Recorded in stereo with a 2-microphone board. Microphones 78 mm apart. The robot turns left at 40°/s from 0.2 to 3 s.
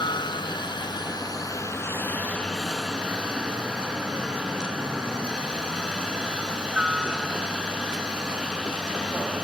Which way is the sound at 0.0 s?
100° left.